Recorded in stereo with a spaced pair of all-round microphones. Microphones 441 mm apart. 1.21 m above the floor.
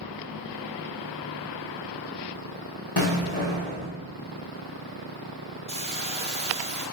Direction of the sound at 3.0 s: 60° left (ahead or behind).